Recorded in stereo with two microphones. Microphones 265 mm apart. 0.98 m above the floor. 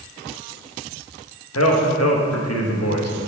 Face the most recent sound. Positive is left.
turn(degrees=60)  # may be behind; listen again after turning